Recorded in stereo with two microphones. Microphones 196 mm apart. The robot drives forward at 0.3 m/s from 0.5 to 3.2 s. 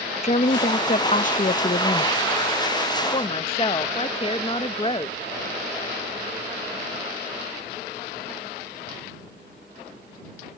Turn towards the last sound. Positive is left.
turn(degrees=30)  # may be behind; listen again after turning